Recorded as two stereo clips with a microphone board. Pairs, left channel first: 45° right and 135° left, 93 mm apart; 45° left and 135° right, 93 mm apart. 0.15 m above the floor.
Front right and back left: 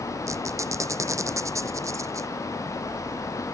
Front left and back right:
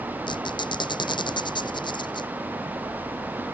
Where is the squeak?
80° left.